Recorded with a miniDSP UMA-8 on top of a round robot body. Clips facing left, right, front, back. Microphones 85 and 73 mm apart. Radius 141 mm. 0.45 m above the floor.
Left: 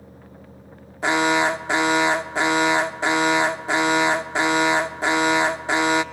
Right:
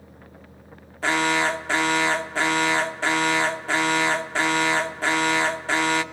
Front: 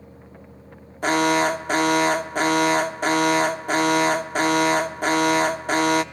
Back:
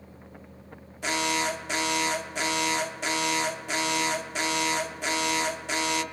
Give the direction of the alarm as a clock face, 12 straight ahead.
11 o'clock.